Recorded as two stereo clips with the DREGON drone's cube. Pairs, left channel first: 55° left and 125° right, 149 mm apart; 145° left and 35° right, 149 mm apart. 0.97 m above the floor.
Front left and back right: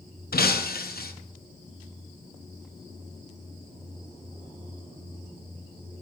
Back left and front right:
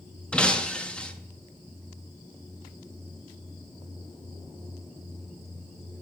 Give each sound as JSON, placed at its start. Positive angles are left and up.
{"t": 0.3, "sound": "breaking glass", "azimuth_deg": 60, "distance_m": 0.7}